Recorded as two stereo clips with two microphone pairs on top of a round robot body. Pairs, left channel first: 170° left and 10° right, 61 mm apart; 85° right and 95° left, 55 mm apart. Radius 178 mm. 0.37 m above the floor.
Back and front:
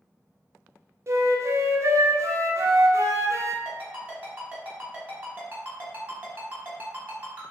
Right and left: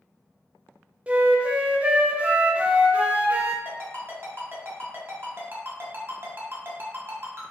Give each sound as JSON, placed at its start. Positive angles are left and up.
{"t": 1.1, "sound": "a flute", "azimuth_deg": 25, "distance_m": 0.6}
{"t": 3.6, "sound": "a ringtone", "azimuth_deg": 50, "distance_m": 1.4}